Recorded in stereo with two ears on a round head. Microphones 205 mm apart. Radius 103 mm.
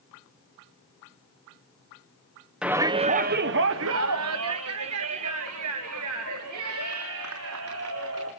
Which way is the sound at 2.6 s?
5° right (ahead or behind).